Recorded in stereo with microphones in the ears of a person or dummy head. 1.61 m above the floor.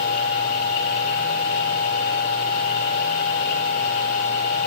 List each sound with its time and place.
0.0 s a machine running: 45° left (ahead or behind), 5 m